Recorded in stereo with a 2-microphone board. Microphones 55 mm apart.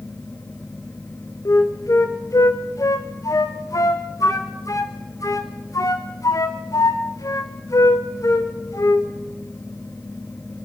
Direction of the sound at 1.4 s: 75° left (ahead or behind).